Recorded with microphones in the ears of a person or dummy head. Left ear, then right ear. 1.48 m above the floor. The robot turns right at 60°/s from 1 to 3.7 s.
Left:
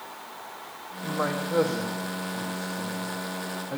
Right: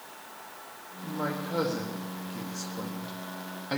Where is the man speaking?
135° left, 1.5 m; by 3.8 s 65° right, 1.5 m.